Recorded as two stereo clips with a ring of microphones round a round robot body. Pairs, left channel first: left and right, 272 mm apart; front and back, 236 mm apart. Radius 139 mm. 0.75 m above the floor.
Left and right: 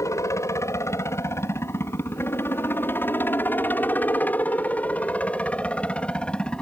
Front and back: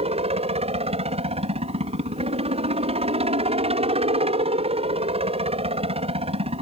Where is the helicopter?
155° left; by 6.6 s 170° left.